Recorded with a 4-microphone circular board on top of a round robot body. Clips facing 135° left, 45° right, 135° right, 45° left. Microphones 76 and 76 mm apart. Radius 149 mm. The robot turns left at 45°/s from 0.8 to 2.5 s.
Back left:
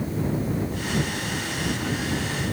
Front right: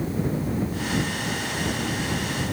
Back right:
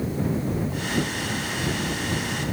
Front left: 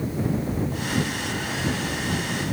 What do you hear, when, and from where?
Only background noise.